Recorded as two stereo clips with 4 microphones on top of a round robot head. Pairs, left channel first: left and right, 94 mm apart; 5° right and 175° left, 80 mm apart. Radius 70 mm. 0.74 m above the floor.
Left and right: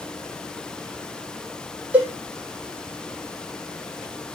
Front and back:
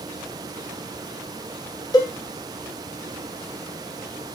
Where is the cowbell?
20° right, 0.7 m.